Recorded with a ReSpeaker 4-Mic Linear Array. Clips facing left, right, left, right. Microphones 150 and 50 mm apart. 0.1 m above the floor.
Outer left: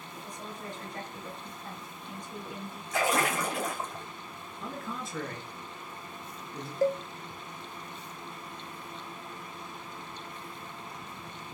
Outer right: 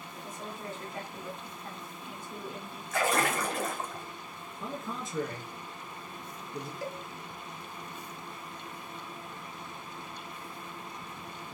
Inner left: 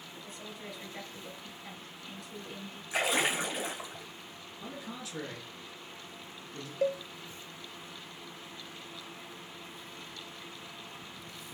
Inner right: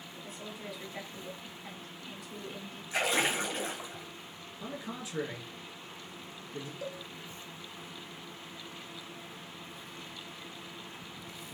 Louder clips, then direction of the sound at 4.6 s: Outer right 1 dB, inner right 2 dB; 20° right (ahead or behind).